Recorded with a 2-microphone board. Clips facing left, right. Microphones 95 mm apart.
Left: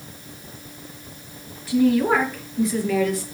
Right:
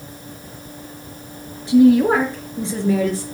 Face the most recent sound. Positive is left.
turn(degrees=-35)  # may be behind; listen again after turning